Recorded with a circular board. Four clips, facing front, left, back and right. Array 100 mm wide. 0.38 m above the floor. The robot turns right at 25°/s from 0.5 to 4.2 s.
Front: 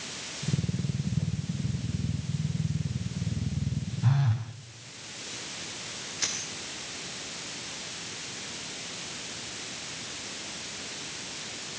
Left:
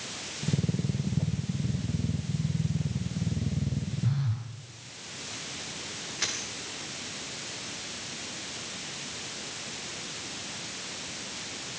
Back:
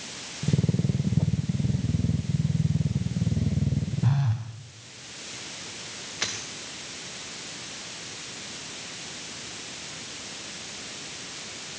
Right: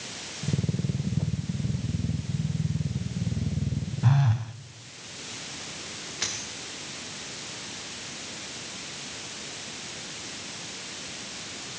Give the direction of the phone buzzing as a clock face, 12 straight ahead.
3 o'clock.